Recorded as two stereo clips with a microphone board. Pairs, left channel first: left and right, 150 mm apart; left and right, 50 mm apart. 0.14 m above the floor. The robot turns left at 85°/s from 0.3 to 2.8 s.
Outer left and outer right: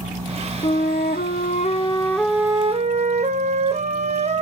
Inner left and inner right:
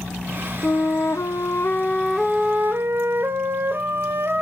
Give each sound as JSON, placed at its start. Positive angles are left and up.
{"t": 0.6, "sound": "a flute", "azimuth_deg": 135, "distance_m": 1.0}